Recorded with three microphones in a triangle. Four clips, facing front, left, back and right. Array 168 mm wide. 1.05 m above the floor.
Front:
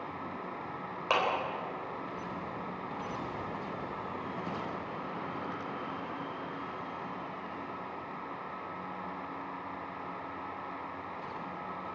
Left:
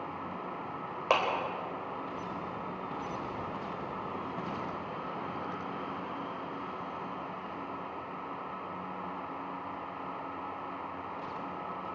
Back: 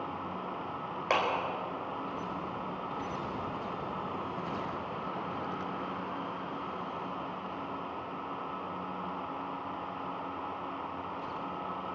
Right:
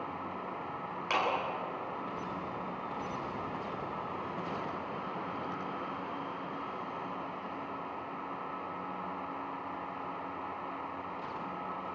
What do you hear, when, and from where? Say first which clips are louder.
1.1 s a clap: left 4 dB, even; 100° left, 4 m